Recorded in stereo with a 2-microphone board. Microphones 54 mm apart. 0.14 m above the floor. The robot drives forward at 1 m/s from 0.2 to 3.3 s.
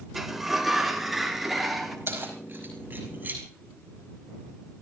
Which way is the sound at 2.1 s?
40° right (ahead or behind).